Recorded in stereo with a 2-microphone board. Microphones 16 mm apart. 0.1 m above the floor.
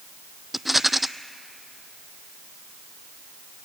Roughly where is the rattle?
Centre.